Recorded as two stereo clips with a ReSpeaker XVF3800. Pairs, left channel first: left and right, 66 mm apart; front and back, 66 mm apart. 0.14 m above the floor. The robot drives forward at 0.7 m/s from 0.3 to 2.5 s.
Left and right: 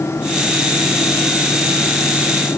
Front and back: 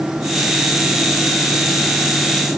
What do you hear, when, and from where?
Only background noise.